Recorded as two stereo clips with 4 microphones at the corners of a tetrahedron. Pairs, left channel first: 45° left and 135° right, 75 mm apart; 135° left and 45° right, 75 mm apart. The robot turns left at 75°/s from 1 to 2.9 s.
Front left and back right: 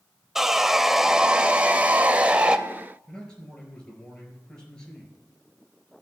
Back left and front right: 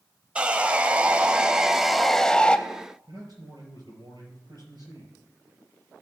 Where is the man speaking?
30° right, 4.5 m.